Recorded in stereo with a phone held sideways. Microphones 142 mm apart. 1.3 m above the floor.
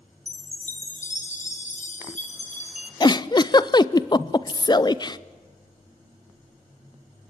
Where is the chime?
60° left (ahead or behind), 2.0 m.